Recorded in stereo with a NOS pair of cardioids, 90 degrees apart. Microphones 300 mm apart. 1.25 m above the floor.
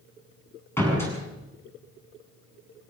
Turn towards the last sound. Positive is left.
turn(degrees=10)